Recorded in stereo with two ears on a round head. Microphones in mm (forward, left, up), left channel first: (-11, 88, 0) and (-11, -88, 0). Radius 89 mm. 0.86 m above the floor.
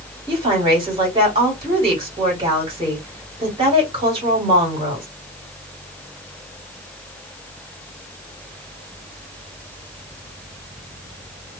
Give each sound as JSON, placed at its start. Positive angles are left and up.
{"t": 0.3, "sound": "a woman speaking", "side_deg": -25, "distance_m": 1.8}